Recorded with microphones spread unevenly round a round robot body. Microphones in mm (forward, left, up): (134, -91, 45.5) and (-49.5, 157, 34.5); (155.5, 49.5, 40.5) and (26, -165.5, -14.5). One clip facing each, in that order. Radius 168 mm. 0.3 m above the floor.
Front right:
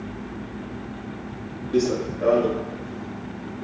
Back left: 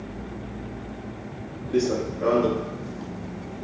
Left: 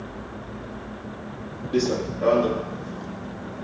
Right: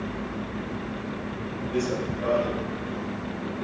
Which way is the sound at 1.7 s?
30° left.